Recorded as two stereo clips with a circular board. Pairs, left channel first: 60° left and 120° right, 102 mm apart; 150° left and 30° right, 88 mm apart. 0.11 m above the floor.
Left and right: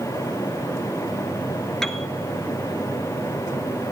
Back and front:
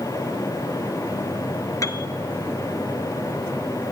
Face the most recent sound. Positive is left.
turn(degrees=140)